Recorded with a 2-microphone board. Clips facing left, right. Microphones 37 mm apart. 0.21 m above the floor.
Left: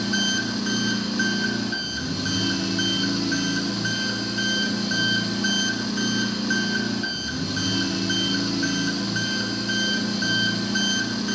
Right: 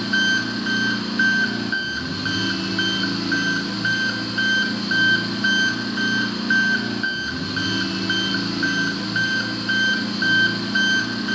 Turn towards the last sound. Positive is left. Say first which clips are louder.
# right 4 dB
turn(degrees=-25)  # may be behind; listen again after turning